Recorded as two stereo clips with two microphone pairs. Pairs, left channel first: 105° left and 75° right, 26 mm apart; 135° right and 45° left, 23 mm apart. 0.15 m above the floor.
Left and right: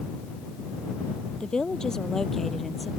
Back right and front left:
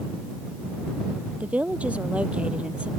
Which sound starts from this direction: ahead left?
A woman speaking, at 1.4 s.